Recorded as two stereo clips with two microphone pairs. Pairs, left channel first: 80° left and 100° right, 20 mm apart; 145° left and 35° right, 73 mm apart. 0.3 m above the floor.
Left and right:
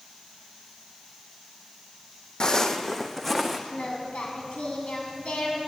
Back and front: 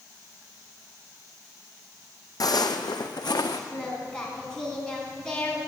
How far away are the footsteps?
About 0.8 m.